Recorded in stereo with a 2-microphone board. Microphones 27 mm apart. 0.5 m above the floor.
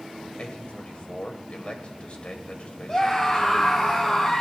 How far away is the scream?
About 2 m.